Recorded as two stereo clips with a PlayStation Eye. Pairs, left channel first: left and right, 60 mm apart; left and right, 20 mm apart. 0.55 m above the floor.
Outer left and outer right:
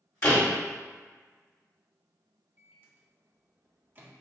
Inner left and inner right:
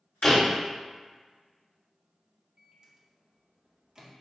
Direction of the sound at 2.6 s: 35° right (ahead or behind).